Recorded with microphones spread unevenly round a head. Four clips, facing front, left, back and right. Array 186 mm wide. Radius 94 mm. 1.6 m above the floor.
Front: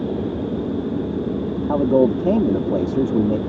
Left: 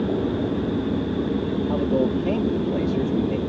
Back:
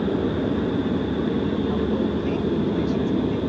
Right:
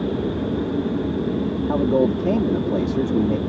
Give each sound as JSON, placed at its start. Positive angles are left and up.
{"t": 1.7, "sound": "a man speaking", "azimuth_deg": -10}